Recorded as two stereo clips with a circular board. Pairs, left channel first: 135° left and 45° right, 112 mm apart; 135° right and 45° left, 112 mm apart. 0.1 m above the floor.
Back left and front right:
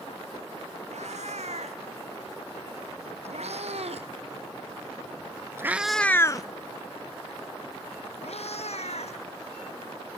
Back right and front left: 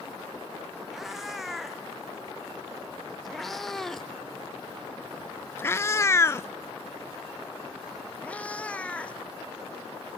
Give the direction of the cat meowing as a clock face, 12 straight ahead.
1 o'clock.